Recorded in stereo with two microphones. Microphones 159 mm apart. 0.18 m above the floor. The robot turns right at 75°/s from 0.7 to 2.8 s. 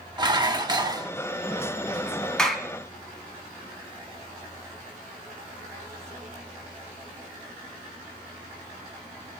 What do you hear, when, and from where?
0.2 s dishes clattering: 30° right (ahead or behind), 0.9 m; by 1.1 s 25° right (ahead or behind), 0.9 m
2.4 s a clap: 5° left (ahead or behind), 1.1 m; by 2.7 s 10° right (ahead or behind), 1.1 m